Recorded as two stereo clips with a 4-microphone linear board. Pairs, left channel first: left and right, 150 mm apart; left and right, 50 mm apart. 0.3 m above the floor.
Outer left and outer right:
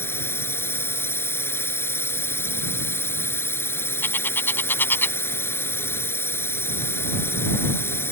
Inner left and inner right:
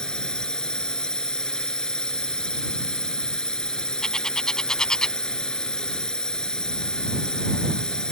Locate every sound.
0.0 s a drone: 15° left (ahead or behind)
4.0 s a bird: 15° left (ahead or behind)